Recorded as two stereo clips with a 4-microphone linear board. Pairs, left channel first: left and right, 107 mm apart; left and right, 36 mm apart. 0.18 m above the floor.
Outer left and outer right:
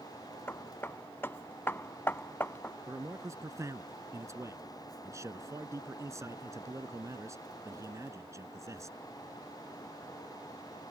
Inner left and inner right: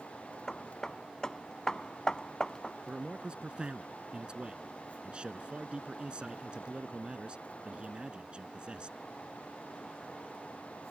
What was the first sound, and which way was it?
Hammering, 20° left (ahead or behind).